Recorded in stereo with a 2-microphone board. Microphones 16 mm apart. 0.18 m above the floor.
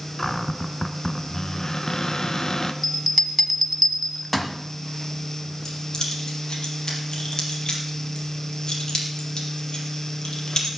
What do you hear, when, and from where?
0.2 s a cupboard door: 35° left (ahead or behind), 0.9 m
2.8 s a bell: 10° left (ahead or behind), 1.2 m
5.7 s keys jangling: 55° left (ahead or behind), 4 m